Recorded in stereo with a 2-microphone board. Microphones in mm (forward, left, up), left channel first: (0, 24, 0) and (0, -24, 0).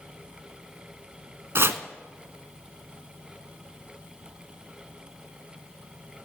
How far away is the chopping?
About 0.6 m.